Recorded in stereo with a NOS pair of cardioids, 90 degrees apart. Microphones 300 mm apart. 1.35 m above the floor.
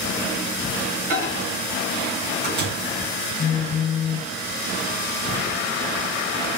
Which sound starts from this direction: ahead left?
A phone buzzing, at 3.4 s.